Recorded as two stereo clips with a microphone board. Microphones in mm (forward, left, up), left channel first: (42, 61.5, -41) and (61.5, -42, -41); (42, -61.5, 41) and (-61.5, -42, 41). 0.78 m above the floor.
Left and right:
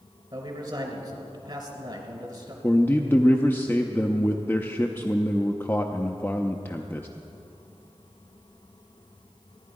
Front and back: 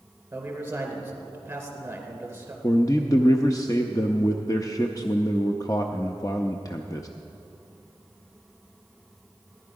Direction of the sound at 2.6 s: 35° left.